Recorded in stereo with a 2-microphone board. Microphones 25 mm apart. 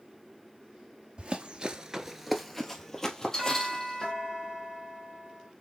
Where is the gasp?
I don't hear a gasp.